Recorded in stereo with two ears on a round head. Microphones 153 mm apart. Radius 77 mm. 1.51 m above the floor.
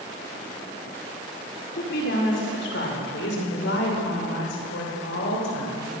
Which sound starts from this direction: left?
A woman speaking, at 1.7 s.